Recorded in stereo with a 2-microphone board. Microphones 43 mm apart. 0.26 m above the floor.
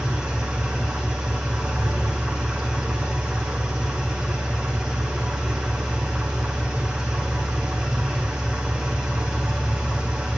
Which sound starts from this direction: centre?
An engine running, at 0.0 s.